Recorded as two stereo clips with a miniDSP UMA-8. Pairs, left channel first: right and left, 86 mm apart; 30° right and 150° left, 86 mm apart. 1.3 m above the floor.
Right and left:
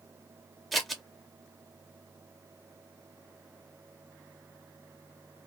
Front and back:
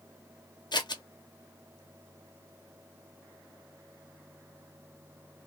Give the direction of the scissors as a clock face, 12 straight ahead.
12 o'clock.